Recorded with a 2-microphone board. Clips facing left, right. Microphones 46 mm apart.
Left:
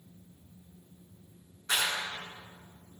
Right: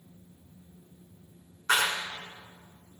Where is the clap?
55° right (ahead or behind), 2.5 m.